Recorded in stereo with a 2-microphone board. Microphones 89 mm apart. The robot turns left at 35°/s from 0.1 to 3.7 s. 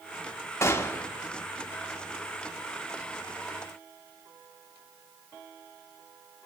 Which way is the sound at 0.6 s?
30° left (ahead or behind).